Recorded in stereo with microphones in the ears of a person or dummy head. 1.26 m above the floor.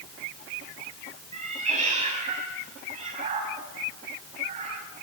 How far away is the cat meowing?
About 5.5 m.